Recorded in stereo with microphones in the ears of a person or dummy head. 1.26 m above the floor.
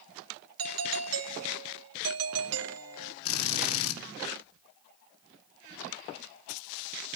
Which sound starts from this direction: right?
A doorbell, at 0.6 s.